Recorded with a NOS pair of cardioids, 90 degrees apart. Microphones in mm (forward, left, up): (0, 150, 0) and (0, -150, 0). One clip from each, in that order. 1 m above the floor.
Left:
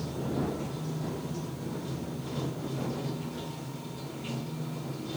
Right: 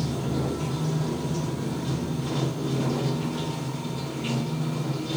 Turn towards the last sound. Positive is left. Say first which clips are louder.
# right 4 dB
turn(degrees=-60)